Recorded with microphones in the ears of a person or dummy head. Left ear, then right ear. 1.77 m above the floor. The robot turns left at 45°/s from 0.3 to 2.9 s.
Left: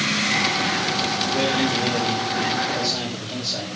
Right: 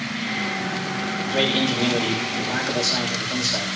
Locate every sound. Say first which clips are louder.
1.2 s a man speaking: right 4 dB; 50° right, 9 m; by 3.7 s 125° right, 9 m